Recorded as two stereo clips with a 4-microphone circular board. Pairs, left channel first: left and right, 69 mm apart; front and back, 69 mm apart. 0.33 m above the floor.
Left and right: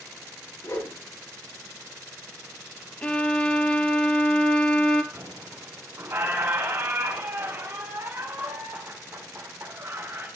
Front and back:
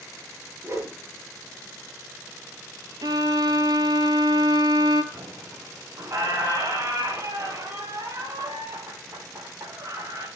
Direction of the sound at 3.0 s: 165° left.